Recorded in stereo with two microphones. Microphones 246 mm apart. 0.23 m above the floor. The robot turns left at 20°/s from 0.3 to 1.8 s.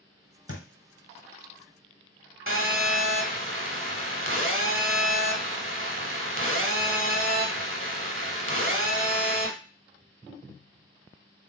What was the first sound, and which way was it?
A thud, 60° left (ahead or behind).